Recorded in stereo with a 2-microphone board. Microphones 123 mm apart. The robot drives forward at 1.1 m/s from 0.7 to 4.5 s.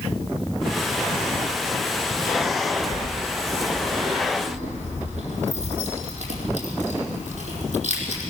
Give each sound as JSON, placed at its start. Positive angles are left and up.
{"t": 2.9, "sound": "keys jangling", "side_deg": -80, "distance_m": 4.5}